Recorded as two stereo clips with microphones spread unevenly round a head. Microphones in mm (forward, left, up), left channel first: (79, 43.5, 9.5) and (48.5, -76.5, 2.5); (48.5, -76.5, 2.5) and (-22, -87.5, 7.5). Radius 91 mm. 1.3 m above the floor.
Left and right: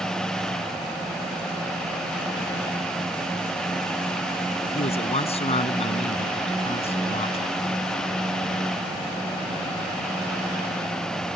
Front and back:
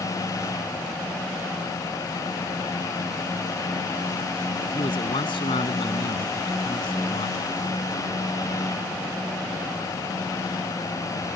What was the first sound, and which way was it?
A man speaking, 40° left.